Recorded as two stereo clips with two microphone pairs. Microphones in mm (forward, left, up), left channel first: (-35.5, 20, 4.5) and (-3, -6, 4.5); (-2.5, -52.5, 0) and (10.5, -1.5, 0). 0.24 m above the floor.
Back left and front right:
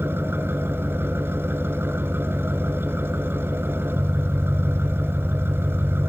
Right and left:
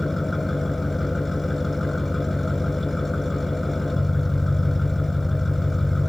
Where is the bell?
No bell in this recording.